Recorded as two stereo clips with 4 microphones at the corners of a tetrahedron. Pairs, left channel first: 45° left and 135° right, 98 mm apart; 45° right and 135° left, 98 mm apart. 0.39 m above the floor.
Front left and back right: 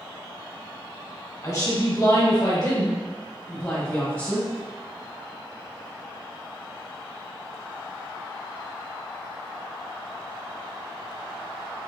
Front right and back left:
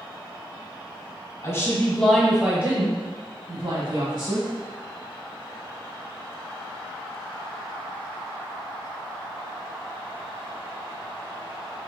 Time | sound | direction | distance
1.4 | a woman speaking | 5° right | 1.3 m